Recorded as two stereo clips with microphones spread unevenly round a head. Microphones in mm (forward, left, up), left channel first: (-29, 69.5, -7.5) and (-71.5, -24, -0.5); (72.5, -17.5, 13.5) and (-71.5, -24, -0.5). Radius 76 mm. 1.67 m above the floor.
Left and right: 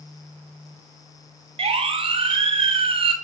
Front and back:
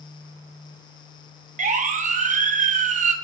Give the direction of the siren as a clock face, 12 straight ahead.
5 o'clock.